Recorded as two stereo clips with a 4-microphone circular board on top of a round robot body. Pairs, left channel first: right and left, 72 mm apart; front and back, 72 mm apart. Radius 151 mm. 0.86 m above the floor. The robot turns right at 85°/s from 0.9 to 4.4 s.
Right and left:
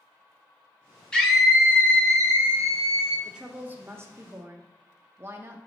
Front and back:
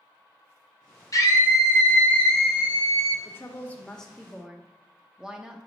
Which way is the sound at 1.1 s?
15° right.